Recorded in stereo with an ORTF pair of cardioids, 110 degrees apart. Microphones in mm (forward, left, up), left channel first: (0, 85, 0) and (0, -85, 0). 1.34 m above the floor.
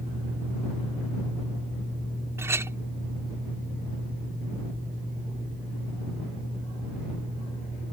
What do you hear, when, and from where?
2.4 s a clink: 15° right